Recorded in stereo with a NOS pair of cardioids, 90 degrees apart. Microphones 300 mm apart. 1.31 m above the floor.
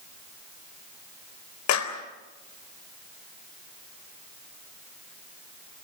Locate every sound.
1.7 s a clap: 70° left, 4 m